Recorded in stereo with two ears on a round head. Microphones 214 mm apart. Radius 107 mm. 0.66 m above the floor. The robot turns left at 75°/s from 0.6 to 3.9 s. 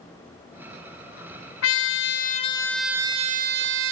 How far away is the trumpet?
About 0.6 m.